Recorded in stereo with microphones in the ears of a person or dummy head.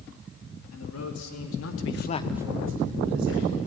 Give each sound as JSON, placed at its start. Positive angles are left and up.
{"t": 0.7, "sound": "a man speaking", "side_deg": 85, "distance_m": 2.5}